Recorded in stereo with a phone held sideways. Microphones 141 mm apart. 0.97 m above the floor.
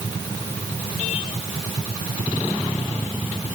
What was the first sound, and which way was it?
Only background noise.